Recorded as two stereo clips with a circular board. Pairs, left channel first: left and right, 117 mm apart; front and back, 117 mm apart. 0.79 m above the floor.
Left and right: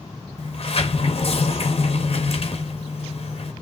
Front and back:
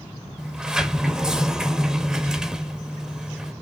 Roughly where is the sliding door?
Left.